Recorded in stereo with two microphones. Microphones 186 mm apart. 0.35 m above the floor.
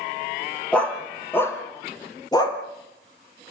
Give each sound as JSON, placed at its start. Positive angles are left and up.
{"t": 0.7, "sound": "a dog barking", "side_deg": 5, "distance_m": 3.0}